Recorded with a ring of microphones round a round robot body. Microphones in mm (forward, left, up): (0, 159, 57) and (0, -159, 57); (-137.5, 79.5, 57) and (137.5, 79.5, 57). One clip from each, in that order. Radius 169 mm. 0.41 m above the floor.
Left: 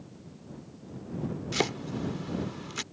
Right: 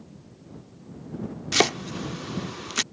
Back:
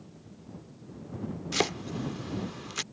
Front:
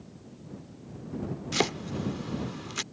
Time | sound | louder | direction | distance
1.5 | chopping | right 9 dB, front 1 dB | 95° right | ?